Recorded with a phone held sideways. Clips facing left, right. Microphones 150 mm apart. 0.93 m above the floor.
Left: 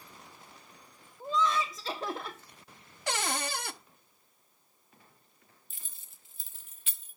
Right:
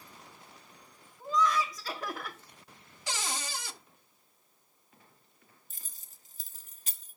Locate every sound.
1.2 s laughter: 25° left (ahead or behind), 0.9 m
3.1 s a cupboard door: 60° left (ahead or behind), 0.6 m
5.7 s keys jangling: 40° right (ahead or behind), 0.9 m